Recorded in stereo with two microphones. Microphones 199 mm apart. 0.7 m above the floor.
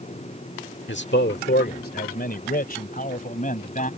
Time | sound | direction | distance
0.9 | a man speaking | 60° left (ahead or behind) | ?